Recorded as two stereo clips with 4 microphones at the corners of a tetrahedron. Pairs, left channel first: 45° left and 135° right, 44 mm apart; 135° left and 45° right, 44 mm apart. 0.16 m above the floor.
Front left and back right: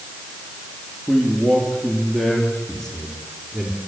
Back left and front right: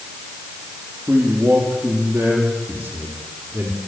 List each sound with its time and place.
1.1 s a man speaking: 25° right, 5.5 m; by 3.8 s 45° right, 5 m